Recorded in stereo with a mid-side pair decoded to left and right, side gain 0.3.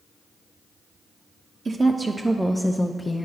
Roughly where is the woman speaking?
Ahead right.